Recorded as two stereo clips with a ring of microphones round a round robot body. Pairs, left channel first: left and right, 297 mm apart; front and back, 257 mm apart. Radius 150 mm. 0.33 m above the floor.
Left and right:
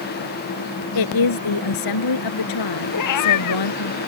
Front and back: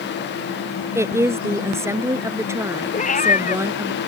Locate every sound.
0.9 s a woman speaking: 100° left
2.9 s a cat meowing: 60° left